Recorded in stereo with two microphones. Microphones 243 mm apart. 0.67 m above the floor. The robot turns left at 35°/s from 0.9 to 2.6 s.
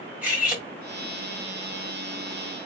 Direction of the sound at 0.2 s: 5° right (ahead or behind).